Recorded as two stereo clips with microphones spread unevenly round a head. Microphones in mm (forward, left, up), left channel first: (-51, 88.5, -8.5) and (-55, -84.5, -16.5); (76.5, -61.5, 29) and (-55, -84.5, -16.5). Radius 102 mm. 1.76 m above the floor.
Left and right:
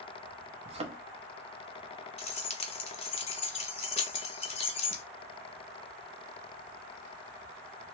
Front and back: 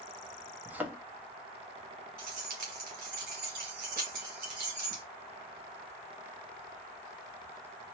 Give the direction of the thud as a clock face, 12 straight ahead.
2 o'clock.